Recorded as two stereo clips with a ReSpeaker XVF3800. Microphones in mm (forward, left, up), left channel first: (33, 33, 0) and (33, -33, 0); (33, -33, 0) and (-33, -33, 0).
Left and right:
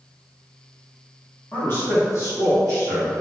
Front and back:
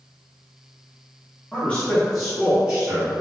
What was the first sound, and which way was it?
A man speaking, 55° left.